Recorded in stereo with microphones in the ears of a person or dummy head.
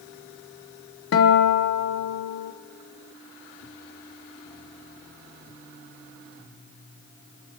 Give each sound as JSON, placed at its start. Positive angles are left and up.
{"t": 1.1, "sound": "a guitar", "side_deg": 75, "distance_m": 1.1}